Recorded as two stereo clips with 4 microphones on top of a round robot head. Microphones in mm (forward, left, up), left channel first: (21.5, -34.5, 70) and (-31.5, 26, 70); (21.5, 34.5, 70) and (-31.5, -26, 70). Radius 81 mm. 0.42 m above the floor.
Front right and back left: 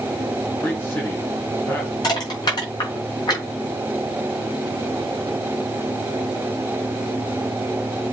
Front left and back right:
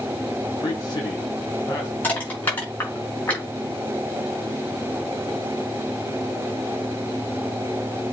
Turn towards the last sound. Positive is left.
turn(degrees=-15)